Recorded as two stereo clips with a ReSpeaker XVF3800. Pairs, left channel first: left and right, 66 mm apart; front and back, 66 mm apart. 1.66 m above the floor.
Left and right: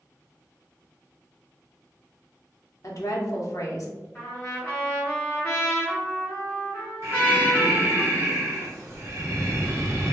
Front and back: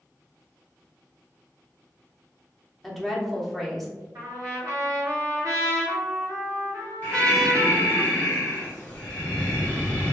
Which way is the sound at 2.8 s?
90° left.